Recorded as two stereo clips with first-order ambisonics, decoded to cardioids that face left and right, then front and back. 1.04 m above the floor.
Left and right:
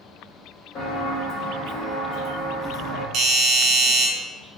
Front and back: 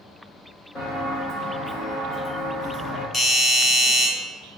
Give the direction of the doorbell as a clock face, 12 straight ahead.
2 o'clock.